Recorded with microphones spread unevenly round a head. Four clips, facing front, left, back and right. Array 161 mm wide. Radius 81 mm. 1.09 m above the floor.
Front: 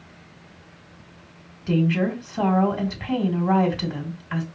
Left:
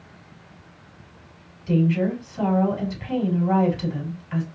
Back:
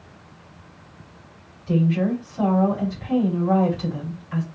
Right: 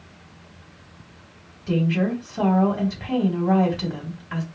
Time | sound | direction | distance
1.7 | a woman speaking | 35° right | 2.5 m